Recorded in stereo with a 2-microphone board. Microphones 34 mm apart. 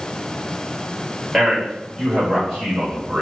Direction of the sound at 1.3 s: 15° right (ahead or behind).